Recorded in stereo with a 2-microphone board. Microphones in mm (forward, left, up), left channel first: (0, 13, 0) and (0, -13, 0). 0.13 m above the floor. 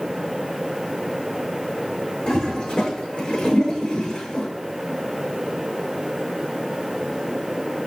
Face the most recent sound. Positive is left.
turn(degrees=40)  # may be behind; listen again after turning